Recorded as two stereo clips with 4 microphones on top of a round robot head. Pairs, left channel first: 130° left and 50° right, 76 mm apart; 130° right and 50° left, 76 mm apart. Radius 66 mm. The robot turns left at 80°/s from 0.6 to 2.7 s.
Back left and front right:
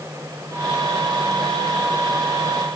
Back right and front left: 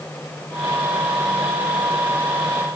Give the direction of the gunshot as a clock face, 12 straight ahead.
No gunshot in this recording.